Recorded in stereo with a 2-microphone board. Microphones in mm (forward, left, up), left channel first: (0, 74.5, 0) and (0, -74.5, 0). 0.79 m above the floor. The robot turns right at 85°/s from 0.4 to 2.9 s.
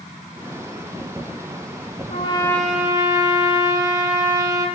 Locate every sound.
2.1 s a trumpet: 135° left, 1.4 m; by 4.7 s 160° right, 1.4 m